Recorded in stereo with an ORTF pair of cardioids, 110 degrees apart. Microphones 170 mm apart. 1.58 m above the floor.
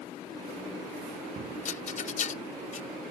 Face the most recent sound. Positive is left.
turn(degrees=45)